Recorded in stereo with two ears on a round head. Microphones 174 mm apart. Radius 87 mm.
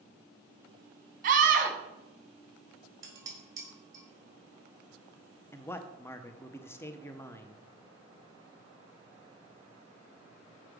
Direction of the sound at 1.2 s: 45° right (ahead or behind).